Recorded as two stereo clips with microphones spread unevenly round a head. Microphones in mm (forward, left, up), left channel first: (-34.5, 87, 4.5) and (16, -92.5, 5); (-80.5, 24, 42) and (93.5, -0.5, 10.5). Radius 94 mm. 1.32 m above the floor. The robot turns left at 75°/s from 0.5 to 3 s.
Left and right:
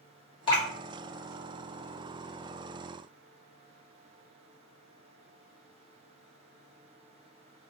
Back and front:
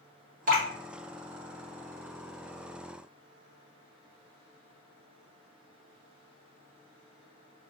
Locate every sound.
0.5 s dripping: 40° left, 1.3 m; by 0.7 s 25° left, 1.3 m